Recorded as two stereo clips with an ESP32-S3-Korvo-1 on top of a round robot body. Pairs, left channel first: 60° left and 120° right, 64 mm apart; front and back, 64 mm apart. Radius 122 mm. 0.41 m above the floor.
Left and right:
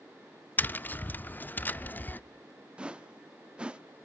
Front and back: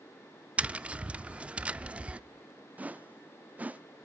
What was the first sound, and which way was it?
Tapping, 115° left.